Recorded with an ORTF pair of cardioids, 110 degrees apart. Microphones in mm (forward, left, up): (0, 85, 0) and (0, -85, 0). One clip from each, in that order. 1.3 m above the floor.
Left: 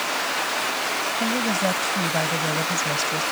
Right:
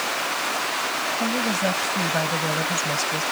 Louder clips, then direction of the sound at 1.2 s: Left 1 dB; straight ahead.